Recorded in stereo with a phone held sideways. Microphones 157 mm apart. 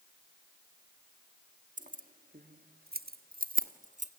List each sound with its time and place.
1.8 s keys jangling: 55° right (ahead or behind), 1.3 m; by 4.1 s 50° right (ahead or behind), 1.1 m